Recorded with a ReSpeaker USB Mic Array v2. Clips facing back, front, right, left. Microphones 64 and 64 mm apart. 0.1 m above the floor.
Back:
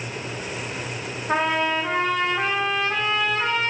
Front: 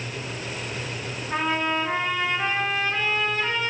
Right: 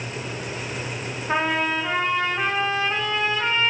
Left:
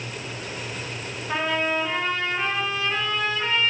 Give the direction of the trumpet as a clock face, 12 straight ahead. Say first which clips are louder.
Back 3 dB, right 2 dB; 5 o'clock.